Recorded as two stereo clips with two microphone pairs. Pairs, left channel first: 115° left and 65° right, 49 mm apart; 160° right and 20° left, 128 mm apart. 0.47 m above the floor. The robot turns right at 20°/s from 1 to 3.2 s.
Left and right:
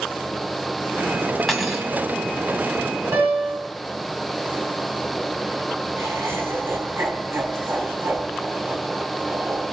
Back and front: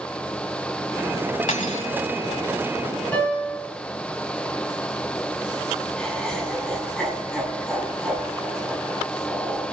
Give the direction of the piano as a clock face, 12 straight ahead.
3 o'clock.